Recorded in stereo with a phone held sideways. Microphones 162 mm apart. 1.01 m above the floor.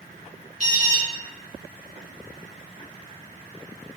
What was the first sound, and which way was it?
An alarm, 45° right (ahead or behind).